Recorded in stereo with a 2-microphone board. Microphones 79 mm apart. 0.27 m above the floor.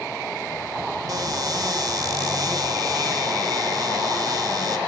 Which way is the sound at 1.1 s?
60° right (ahead or behind).